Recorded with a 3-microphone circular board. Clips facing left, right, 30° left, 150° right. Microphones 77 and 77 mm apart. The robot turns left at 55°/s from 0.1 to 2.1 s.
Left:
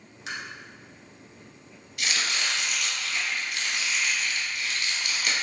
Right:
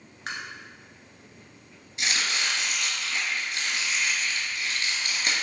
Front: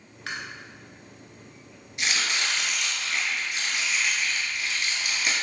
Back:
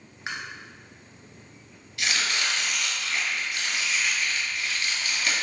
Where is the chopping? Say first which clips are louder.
Right 1 dB, even; 40° right, 1.2 m; by 5.3 s 45° right, 1.2 m.